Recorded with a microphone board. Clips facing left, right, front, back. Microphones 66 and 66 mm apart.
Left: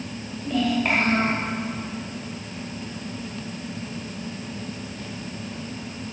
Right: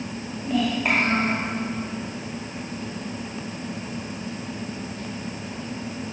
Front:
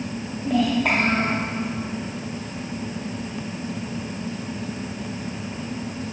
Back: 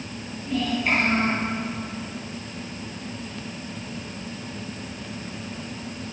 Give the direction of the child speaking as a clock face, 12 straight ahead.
1 o'clock.